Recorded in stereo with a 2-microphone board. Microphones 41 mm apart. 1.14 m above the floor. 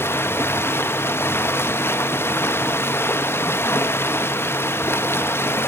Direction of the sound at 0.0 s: 80° left.